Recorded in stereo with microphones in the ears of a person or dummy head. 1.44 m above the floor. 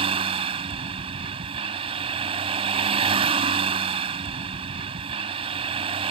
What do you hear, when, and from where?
0.0 s a vehicle: 35° right (ahead or behind)